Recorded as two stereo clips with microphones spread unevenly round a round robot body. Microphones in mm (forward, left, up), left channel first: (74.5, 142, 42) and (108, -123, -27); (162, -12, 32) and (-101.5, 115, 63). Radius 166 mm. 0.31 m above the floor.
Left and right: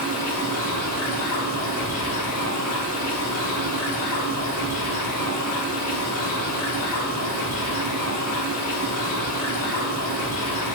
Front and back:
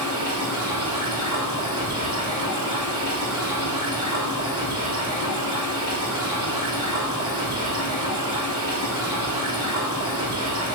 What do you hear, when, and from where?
0.0 s running water: 130° left, 7.5 m